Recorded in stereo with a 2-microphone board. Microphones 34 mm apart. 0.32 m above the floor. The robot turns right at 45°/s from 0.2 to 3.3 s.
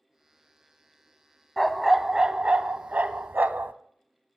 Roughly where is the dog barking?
Behind.